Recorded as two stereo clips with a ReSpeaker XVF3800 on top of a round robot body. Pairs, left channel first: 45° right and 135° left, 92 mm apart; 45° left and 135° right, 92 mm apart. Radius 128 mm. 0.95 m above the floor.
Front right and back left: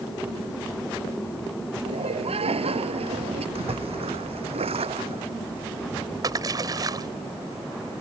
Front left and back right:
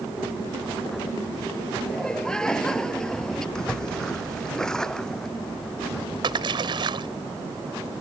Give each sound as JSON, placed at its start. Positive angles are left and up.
{"t": 1.9, "sound": "laughter", "azimuth_deg": 125}
{"t": 3.5, "sound": "a splash", "azimuth_deg": 130}
{"t": 6.2, "sound": "a splash", "azimuth_deg": -175}